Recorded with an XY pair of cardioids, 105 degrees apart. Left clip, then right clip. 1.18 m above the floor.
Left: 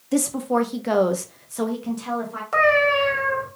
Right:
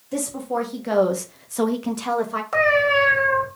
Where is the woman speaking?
40° left, 1.4 m; by 2.4 s 65° right, 1.2 m.